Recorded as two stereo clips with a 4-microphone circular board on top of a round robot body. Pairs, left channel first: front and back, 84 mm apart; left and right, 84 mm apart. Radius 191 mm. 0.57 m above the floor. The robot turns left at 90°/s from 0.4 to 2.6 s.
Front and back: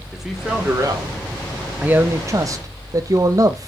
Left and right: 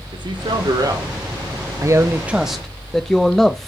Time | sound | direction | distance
0.1 | a man speaking | 90° right | 3 m
1.8 | a man speaking | 110° right | 0.9 m